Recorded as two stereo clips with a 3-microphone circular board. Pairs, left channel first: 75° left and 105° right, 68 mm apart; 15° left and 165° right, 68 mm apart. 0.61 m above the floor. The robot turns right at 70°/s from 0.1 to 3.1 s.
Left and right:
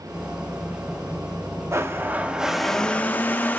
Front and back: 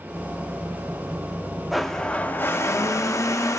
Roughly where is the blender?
Right.